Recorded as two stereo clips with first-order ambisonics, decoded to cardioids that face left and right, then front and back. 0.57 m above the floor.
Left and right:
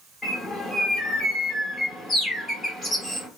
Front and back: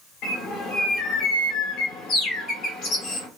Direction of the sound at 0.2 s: 15° left.